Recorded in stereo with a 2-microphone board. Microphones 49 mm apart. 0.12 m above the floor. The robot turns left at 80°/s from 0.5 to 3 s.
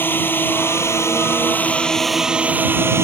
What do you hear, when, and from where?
0.0 s a drone: 130° left; by 3.0 s 70° right